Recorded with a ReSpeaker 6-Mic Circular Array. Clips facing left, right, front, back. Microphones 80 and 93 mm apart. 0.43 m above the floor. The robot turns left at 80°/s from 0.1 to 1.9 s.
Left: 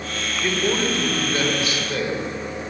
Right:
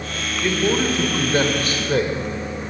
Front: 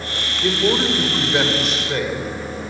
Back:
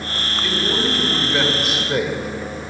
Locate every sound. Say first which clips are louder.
0.4 s a man speaking: right 3 dB, front 5 dB; 5° left, 1.9 m; by 2.2 s 110° right, 1.9 m